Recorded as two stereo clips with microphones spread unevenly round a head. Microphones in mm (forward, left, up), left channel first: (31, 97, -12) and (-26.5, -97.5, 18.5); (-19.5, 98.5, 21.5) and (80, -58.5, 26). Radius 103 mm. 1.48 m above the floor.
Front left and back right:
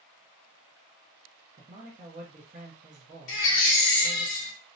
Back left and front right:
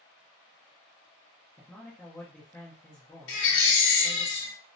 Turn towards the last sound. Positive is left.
turn(degrees=110)